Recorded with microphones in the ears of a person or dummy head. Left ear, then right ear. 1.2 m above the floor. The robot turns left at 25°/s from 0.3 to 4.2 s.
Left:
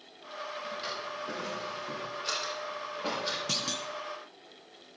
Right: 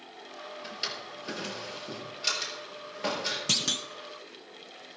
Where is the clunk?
30° right (ahead or behind), 0.6 m; by 3.9 s 20° right (ahead or behind), 0.6 m.